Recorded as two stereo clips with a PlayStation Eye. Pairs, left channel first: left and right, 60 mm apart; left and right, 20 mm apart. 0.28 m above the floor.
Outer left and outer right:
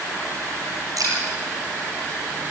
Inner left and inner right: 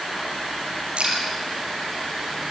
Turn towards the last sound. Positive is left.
turn(degrees=-75)  # may be behind; listen again after turning